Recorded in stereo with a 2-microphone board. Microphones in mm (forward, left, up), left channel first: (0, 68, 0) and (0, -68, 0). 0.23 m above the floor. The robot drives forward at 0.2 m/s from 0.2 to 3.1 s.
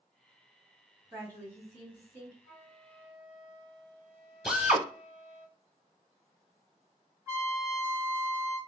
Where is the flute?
5° left (ahead or behind), 2 m.